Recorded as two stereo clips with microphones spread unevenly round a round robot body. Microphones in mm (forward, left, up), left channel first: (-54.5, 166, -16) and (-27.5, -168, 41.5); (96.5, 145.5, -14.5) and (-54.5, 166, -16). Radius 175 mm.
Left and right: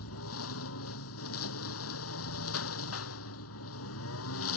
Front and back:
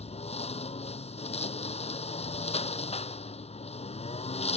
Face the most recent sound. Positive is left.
turn(degrees=40)